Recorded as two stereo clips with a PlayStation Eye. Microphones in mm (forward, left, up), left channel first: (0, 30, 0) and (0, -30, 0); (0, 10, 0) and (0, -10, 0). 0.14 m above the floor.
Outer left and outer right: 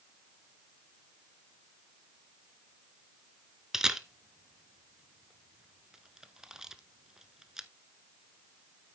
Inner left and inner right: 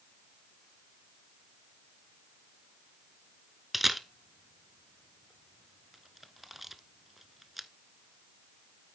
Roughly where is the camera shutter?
Centre.